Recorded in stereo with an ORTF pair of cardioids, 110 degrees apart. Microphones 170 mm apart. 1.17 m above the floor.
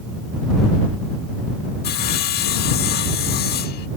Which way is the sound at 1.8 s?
65° left.